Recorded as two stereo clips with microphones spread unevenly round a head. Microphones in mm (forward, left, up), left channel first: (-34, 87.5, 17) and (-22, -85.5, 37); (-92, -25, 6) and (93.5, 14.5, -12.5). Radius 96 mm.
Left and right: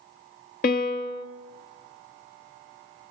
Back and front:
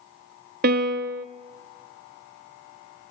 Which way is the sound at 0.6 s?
50° left.